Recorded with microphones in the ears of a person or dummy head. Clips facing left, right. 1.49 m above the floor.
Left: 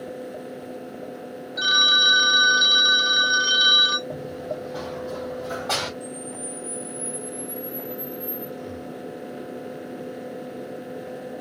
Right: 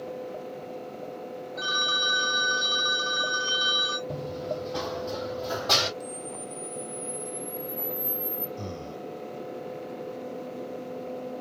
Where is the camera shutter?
40° right (ahead or behind), 3 m.